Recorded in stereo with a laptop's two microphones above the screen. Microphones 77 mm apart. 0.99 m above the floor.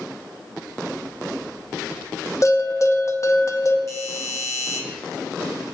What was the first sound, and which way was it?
A bell, 40° left (ahead or behind).